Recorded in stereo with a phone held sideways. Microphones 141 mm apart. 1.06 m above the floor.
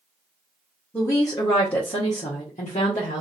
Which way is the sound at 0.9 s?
15° left (ahead or behind).